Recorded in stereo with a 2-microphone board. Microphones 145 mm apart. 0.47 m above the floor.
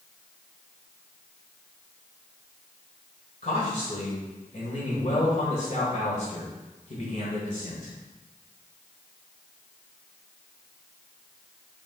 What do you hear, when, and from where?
3.4 s a man speaking: 55° left (ahead or behind), 1.7 m